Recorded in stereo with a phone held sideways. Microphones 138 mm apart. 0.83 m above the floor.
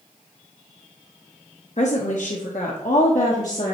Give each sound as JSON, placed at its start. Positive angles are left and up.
{"t": 1.8, "sound": "a woman speaking", "side_deg": 55, "distance_m": 1.1}